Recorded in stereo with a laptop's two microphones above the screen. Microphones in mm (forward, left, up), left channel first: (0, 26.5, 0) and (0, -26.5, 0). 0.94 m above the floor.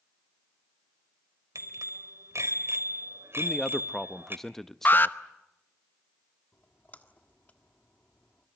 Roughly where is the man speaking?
Centre.